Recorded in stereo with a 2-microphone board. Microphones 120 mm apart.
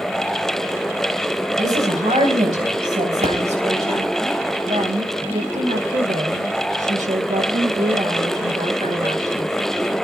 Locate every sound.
1.6 s a woman speaking: 80° right, 8.5 m; by 4.1 s 65° right (ahead or behind), 10.5 m
3.2 s a pop: 65° right (ahead or behind), 5 m
4.7 s a woman speaking: 85° right, 1.6 m